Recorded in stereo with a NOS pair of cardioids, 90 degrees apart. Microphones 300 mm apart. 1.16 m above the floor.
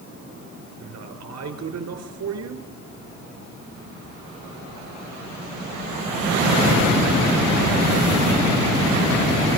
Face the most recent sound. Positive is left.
turn(degrees=-60)